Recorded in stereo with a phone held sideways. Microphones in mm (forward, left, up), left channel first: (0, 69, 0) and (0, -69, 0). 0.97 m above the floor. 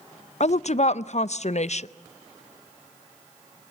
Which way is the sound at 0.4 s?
60° left (ahead or behind).